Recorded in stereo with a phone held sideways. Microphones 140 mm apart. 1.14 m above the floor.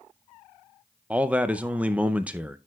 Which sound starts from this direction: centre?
A man speaking, at 1.1 s.